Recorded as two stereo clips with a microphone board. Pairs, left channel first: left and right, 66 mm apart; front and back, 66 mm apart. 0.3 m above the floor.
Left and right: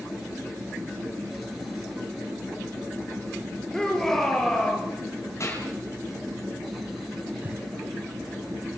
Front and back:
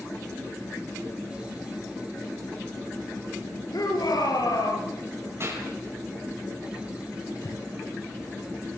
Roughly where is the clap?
Behind left.